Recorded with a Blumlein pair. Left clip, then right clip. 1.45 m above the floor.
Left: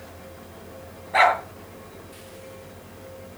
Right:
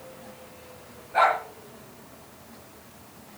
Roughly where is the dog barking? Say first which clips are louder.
Left 3 dB; ahead left.